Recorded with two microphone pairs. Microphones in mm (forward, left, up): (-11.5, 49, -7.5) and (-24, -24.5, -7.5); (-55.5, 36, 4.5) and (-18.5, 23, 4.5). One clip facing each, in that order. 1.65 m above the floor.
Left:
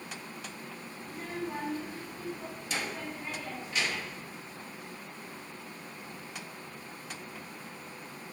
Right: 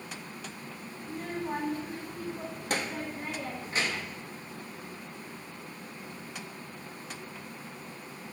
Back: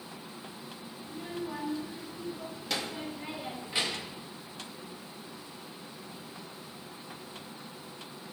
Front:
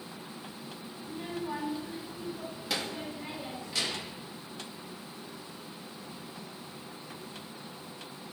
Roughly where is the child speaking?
Right.